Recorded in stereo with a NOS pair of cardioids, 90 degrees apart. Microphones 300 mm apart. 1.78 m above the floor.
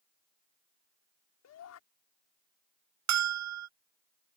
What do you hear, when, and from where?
1.4 s a shout: 60° left
3.1 s a bell: 65° right